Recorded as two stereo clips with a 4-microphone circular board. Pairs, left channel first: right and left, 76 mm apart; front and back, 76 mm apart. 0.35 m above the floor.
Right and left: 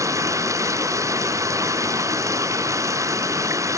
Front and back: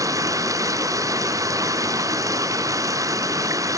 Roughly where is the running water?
Behind left.